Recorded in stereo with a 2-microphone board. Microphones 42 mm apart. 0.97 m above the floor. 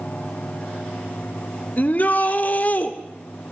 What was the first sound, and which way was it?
A shout, 40° left (ahead or behind).